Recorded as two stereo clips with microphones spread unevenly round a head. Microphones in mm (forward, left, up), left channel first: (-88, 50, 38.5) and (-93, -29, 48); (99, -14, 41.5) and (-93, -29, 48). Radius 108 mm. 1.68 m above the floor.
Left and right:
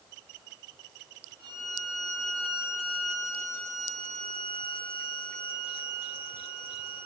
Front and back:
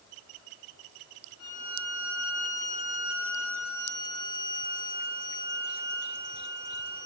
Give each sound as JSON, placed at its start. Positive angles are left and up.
{"t": 1.4, "sound": "a violin", "azimuth_deg": 50, "distance_m": 6.0}